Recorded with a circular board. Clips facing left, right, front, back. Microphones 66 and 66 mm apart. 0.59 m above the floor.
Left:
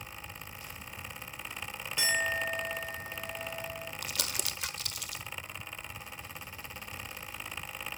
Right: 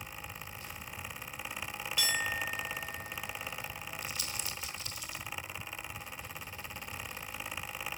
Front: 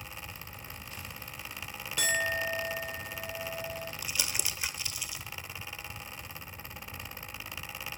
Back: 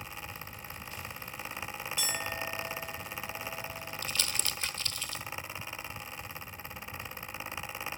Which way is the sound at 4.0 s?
75° left.